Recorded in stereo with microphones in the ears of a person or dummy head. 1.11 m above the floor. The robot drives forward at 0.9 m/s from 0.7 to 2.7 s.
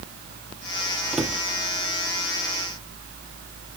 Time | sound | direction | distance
1.1 | a cupboard door | centre (ahead or behind) | 0.9 m